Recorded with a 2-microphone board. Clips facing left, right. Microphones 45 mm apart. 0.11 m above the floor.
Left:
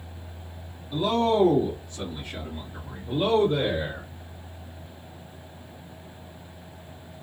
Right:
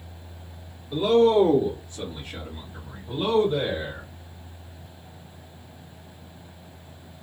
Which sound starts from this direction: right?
A man speaking, at 0.9 s.